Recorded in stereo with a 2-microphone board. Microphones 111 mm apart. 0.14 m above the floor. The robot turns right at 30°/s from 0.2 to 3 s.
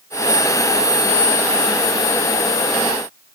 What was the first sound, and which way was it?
Only background noise.